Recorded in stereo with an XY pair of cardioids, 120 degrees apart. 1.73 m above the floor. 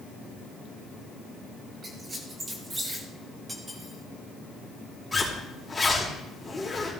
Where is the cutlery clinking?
15° right, 4 m.